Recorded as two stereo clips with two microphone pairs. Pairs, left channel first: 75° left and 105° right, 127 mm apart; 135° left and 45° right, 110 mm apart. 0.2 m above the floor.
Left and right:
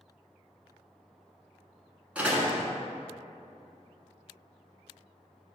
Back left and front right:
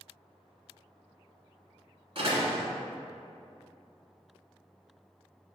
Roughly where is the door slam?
Ahead right.